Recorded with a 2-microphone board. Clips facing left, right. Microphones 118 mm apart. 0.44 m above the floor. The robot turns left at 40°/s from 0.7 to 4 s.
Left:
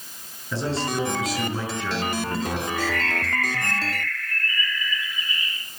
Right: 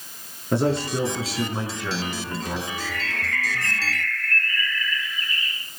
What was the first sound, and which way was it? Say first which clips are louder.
A man speaking: right 4 dB; 130° right.